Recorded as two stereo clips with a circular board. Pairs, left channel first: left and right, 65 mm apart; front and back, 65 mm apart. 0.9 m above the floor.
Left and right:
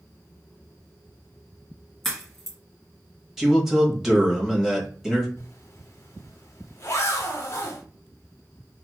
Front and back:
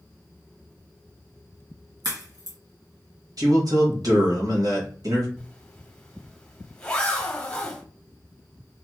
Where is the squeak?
No squeak in this recording.